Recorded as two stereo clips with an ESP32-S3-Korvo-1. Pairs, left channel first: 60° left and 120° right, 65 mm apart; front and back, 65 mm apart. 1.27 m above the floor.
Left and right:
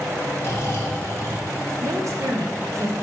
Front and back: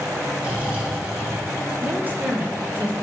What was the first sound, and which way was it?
Snoring, 110° left.